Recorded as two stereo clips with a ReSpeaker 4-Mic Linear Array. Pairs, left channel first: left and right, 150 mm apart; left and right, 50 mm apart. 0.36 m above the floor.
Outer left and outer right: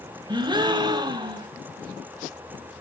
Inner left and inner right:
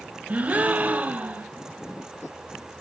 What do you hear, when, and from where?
0.3 s a gasp: 30° right (ahead or behind), 1.2 m